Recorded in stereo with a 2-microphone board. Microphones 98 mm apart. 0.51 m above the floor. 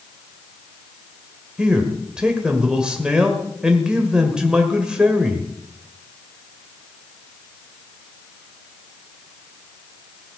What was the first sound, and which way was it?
A man speaking, 10° right (ahead or behind).